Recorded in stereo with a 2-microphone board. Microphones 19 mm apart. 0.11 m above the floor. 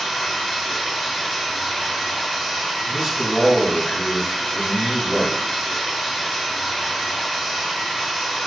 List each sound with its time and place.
0.0 s running water: 80° left, 1.8 m
2.9 s a man speaking: 35° right (ahead or behind), 1.6 m